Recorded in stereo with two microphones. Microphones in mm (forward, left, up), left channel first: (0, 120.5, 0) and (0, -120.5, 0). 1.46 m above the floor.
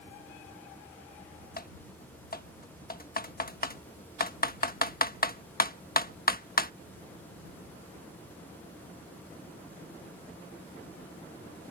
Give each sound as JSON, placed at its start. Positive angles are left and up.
{"t": 1.6, "sound": "typing on a keyboard", "side_deg": 40}